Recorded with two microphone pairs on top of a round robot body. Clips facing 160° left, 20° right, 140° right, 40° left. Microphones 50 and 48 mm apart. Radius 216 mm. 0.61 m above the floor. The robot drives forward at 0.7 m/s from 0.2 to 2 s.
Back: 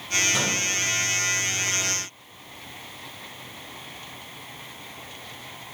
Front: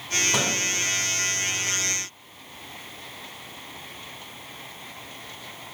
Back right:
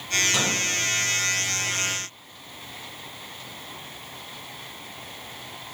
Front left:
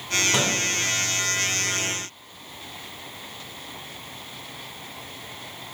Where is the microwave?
20° right, 1.7 m.